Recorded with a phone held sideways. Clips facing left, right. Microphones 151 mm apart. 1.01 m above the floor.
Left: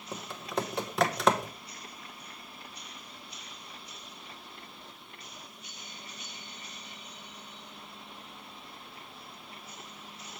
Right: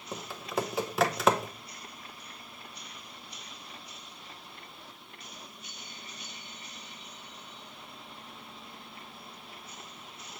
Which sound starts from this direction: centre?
Typing on a keyboard, at 0.1 s.